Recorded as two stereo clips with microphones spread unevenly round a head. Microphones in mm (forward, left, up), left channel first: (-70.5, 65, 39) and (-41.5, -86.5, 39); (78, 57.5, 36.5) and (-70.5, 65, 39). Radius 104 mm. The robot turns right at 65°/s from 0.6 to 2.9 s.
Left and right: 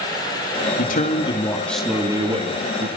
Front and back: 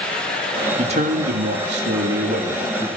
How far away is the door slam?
I don't hear a door slam.